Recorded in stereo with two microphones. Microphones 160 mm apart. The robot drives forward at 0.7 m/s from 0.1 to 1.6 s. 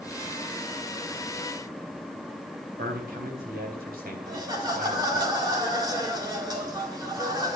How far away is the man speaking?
About 4 m.